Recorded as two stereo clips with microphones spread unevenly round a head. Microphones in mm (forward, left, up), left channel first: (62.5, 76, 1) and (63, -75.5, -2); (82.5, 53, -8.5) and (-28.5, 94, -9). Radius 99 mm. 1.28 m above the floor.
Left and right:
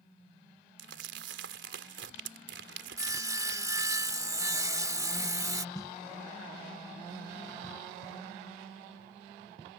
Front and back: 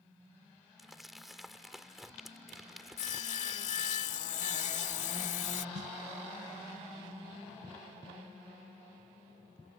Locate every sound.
0.8 s crumpling: 110° right
3.0 s sawing: 25° right
5.8 s a snare drum: 165° left